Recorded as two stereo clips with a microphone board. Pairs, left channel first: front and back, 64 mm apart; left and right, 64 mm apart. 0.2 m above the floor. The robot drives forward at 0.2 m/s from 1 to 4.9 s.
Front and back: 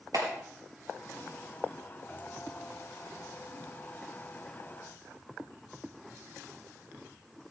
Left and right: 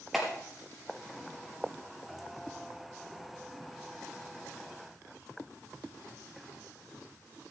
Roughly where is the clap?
Behind.